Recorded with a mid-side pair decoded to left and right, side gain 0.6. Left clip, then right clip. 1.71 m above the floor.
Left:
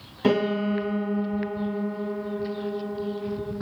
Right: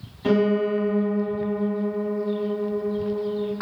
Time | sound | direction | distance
0.2 | a piano | 45° left | 1.4 m